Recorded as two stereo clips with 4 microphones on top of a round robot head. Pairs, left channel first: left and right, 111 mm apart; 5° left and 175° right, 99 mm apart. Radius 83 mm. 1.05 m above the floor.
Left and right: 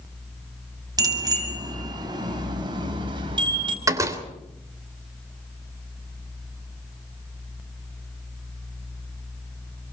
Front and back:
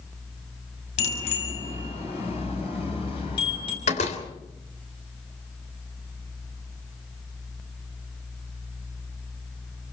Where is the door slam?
30° right, 3 m.